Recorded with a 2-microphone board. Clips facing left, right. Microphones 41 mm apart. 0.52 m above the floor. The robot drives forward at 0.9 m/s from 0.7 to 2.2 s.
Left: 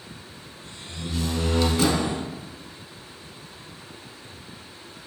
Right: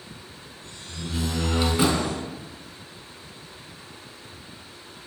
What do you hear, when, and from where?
0.9 s a door slam: 10° right (ahead or behind), 4 m; by 2.2 s 15° right (ahead or behind), 2.5 m